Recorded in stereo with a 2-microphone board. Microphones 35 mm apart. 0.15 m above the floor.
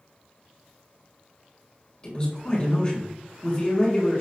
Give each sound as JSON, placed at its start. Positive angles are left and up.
{"t": 2.0, "sound": "a man speaking", "side_deg": 30, "distance_m": 1.3}